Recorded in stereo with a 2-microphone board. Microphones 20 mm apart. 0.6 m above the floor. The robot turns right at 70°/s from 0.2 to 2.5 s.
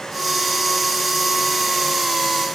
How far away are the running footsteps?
I don't hear running footsteps.